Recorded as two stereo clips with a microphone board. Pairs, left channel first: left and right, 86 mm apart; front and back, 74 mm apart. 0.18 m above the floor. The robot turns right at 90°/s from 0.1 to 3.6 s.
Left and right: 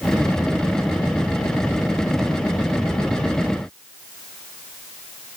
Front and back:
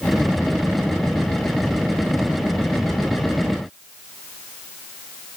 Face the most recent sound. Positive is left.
No sound to turn to.